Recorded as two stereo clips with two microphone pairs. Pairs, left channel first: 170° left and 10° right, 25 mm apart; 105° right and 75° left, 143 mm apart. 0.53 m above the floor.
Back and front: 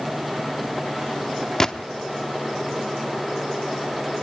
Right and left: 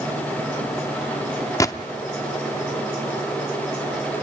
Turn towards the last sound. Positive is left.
turn(degrees=-145)